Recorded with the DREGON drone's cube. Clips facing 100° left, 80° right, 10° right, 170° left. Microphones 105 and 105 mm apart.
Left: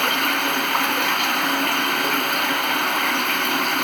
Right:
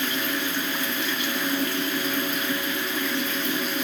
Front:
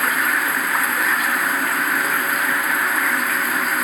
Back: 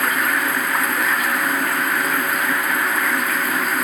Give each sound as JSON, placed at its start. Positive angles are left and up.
{"t": 0.0, "sound": "running water", "azimuth_deg": 80}